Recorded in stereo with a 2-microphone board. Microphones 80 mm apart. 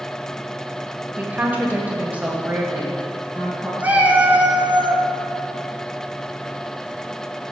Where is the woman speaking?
20° right (ahead or behind), 0.9 m; by 3.7 s 15° right (ahead or behind), 2 m.